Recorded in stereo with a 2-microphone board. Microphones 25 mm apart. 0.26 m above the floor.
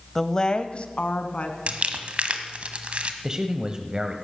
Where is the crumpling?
50° right (ahead or behind), 1.5 m.